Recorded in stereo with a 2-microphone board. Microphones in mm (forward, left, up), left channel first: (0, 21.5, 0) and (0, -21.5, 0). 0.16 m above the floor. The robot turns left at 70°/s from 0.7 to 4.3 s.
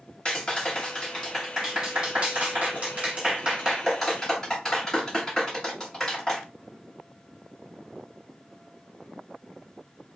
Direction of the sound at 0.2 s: 30° left (ahead or behind).